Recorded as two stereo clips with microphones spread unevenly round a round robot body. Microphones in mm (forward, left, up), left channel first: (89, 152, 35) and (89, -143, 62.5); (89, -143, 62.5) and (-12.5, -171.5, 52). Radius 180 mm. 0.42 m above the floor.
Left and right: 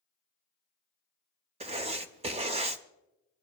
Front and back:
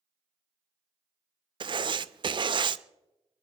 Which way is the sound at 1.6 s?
160° right.